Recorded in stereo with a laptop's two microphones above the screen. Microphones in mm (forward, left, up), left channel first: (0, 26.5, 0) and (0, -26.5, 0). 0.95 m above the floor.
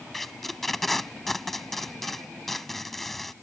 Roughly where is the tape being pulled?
Centre.